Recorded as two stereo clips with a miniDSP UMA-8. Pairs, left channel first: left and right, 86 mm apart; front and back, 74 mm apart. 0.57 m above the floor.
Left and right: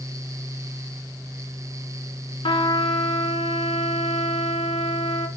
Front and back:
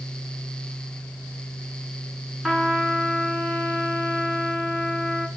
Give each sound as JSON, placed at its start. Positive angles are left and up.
{"t": 2.4, "sound": "a trumpet", "azimuth_deg": 95, "distance_m": 1.5}